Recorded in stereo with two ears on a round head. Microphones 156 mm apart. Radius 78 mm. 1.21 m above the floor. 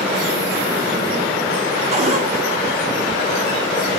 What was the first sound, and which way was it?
A cupboard door, 40° right (ahead or behind).